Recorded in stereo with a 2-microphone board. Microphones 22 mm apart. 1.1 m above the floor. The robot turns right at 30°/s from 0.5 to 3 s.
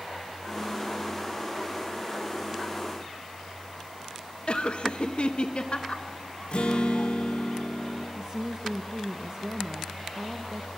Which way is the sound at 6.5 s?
55° left (ahead or behind).